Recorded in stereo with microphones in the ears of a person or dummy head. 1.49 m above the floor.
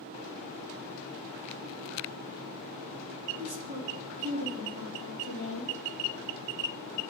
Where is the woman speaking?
45° right (ahead or behind), 2.5 m.